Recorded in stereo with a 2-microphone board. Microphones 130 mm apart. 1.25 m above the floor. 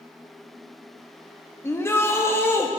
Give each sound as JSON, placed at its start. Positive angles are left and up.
{"t": 1.6, "sound": "a shout", "side_deg": 20, "distance_m": 1.8}